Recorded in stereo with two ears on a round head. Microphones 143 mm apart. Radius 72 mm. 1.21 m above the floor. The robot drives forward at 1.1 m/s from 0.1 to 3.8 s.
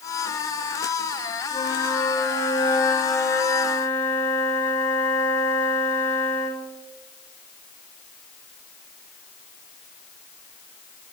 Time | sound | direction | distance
1.5 | a flute | 30° left (ahead or behind) | 3 m